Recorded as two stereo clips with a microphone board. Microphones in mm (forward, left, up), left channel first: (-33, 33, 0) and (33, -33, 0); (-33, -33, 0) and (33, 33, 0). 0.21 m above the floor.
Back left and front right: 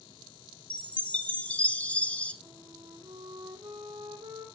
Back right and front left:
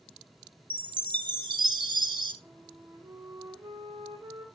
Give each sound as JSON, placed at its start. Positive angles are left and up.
{"t": 0.7, "sound": "a chime", "azimuth_deg": 60, "distance_m": 0.9}
{"t": 2.4, "sound": "a flute", "azimuth_deg": -5, "distance_m": 5.5}